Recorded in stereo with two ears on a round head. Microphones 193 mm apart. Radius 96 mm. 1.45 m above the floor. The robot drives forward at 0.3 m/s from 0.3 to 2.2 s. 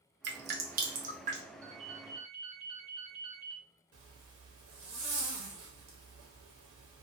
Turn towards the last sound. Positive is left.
turn(degrees=-75)  # may be behind; listen again after turning